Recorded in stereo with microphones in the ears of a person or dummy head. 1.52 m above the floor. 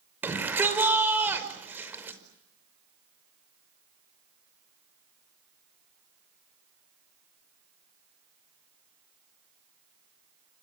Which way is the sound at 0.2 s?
10° right (ahead or behind).